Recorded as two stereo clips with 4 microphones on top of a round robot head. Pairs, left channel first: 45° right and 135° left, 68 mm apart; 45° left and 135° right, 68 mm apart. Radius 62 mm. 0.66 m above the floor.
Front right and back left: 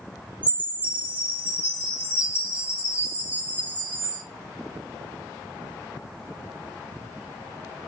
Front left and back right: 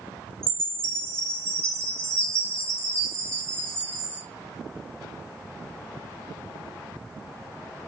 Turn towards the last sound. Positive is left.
turn(degrees=-170)